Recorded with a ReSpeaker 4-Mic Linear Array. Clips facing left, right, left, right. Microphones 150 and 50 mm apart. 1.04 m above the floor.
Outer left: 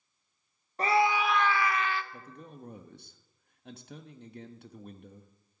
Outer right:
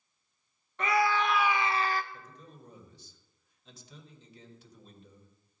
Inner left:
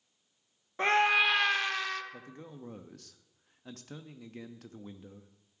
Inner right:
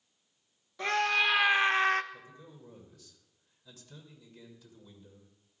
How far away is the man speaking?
About 1.1 m.